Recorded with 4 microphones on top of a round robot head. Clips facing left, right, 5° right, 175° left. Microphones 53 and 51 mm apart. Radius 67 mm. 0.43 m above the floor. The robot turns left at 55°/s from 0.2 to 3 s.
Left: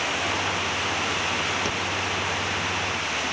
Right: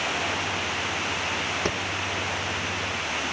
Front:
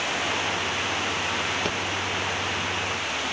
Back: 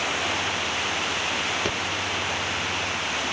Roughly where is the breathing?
Right.